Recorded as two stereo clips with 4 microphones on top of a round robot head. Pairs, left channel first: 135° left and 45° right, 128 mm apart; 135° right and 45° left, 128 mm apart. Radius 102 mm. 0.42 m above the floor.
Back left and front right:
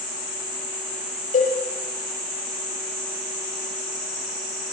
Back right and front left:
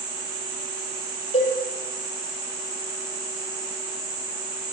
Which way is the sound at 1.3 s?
175° left.